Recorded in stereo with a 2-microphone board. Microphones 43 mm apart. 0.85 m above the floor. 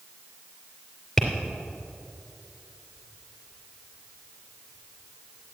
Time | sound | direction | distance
1.2 | tapping | 5° left (ahead or behind) | 3 m